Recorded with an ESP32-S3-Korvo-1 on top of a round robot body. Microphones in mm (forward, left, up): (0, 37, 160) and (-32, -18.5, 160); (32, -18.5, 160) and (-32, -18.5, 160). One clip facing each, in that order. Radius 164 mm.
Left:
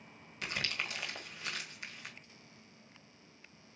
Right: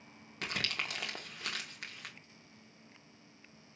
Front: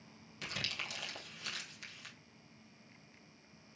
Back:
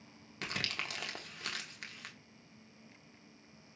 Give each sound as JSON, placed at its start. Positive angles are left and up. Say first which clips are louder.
{"t": 0.4, "sound": "crumpling", "louder": "right 1 dB, back 3 dB", "azimuth_deg": -150, "distance_m": 1.9}